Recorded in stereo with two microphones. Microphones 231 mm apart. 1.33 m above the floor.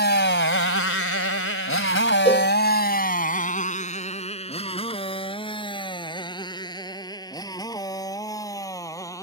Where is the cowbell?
25° left (ahead or behind).